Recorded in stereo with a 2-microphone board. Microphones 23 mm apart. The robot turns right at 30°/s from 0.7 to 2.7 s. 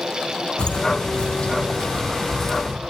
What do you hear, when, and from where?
0.6 s footsteps: 45° left (ahead or behind), 1.7 m; by 2.8 s 10° left (ahead or behind), 2.5 m